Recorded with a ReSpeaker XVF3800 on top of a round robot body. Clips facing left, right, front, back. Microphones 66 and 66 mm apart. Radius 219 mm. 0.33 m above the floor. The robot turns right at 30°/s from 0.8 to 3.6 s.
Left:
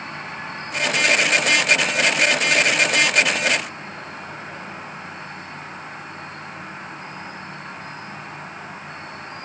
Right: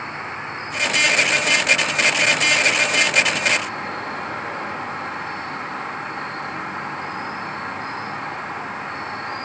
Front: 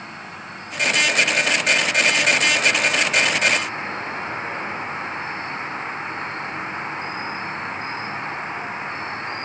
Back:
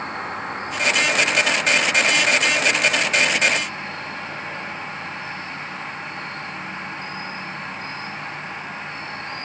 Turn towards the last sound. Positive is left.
turn(degrees=-65)